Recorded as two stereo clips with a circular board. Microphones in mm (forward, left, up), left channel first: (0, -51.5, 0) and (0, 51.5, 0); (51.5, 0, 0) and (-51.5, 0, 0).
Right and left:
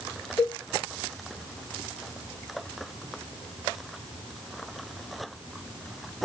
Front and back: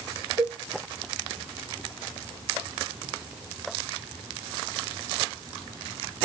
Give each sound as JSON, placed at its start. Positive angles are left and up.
{"t": 0.4, "sound": "a cowbell", "azimuth_deg": -160, "distance_m": 2.5}